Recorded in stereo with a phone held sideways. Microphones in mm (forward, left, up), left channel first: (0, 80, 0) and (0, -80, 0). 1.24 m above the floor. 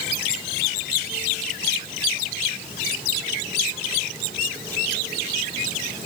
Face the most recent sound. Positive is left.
No sound to turn to.